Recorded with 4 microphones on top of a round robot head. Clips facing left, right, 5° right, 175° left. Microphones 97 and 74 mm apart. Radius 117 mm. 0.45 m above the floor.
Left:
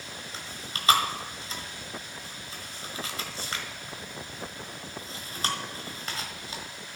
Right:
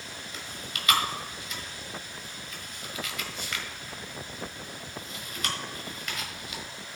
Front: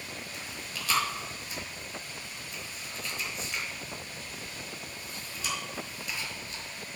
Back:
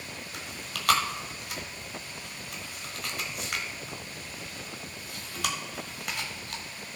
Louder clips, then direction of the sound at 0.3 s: Even, back 1 dB; 150° left.